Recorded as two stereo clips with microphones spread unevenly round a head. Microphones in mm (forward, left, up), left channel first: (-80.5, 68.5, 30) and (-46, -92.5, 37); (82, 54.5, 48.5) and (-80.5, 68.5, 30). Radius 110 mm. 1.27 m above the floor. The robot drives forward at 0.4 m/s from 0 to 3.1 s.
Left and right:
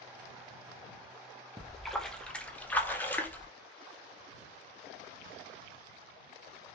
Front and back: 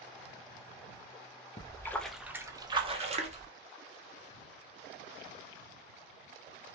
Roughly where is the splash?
Ahead.